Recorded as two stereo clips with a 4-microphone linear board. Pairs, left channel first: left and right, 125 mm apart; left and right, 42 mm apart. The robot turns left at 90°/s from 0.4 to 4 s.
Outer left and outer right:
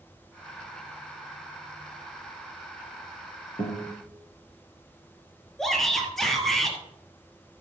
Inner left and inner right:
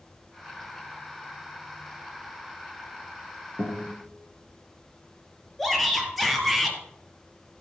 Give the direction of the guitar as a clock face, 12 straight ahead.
10 o'clock.